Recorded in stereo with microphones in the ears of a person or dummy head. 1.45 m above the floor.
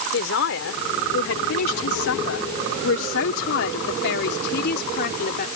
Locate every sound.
0.1 s a man speaking: 60° left (ahead or behind); by 5.5 s 55° left (ahead or behind)